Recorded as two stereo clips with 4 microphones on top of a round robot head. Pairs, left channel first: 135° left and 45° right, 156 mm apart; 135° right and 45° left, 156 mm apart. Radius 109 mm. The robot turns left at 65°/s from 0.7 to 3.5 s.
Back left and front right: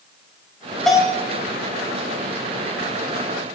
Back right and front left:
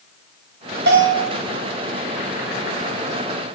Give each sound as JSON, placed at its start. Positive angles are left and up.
{"t": 0.9, "sound": "a bell", "azimuth_deg": 45, "distance_m": 5.0}